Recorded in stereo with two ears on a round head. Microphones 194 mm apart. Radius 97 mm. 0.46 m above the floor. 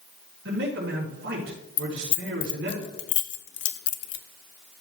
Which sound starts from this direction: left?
Keys jangling, at 1.8 s.